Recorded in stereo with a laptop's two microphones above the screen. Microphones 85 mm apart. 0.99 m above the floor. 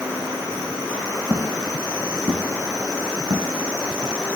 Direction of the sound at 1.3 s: 55° right (ahead or behind).